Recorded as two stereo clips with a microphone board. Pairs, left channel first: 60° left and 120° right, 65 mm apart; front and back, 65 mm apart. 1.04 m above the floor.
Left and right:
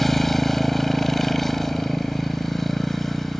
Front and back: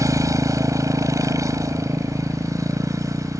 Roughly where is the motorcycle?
Behind left.